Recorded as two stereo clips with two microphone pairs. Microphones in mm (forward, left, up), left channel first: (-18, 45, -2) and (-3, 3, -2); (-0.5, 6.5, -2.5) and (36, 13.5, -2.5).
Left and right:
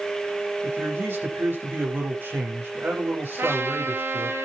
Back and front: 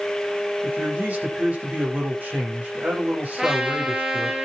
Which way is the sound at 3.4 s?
60° right.